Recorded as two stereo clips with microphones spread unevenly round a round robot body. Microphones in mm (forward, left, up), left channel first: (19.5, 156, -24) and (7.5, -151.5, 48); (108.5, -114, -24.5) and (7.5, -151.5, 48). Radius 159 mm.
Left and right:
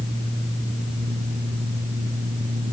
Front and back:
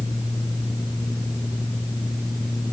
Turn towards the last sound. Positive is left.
No sound to turn to.